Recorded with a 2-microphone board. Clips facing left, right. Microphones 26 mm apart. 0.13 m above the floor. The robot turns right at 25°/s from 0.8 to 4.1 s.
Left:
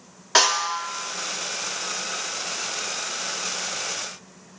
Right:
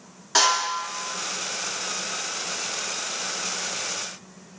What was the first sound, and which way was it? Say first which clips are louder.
A snare drum: left 1 dB; 20° left (ahead or behind).